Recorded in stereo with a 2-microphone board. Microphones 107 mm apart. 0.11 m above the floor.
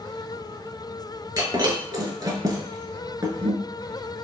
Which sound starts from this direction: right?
Breaking glass, at 1.4 s.